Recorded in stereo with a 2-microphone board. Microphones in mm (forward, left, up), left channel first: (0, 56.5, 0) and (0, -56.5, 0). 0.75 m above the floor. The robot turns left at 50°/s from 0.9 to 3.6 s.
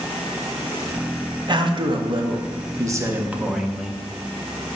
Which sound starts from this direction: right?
A man speaking, at 1.5 s.